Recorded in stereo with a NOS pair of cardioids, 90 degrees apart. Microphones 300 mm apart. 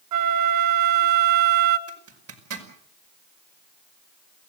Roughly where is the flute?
Ahead right.